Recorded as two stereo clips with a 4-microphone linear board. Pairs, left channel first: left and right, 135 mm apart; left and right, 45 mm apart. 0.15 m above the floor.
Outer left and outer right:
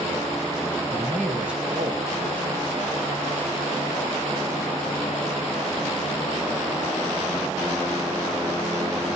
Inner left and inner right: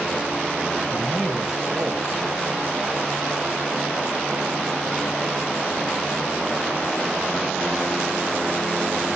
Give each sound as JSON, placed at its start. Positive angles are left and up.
{"t": 0.9, "sound": "a man speaking", "side_deg": 20, "distance_m": 1.4}